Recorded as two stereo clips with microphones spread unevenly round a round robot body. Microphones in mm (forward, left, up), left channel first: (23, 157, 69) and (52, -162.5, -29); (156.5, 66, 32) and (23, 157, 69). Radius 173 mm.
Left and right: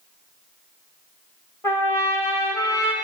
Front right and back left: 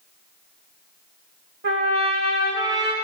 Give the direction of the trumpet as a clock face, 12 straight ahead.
6 o'clock.